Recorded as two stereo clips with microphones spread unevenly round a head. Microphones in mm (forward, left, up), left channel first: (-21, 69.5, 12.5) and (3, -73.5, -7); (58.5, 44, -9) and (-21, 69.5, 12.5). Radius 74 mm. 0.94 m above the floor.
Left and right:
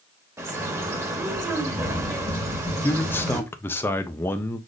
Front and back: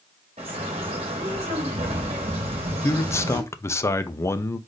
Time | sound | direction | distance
0.4 | a bird | 150° right | 1.3 m
2.8 | a man speaking | 20° left | 0.6 m